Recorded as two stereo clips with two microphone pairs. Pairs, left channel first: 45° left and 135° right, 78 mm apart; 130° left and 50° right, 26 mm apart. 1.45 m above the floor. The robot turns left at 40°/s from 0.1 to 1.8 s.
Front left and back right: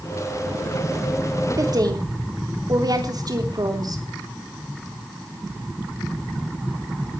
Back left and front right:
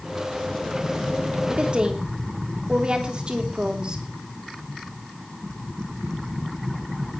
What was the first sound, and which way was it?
A woman speaking, 95° right.